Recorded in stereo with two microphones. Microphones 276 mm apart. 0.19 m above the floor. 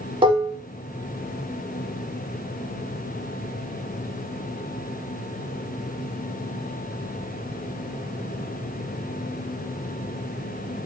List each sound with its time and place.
0.2 s dishes clattering: 20° right (ahead or behind), 0.9 m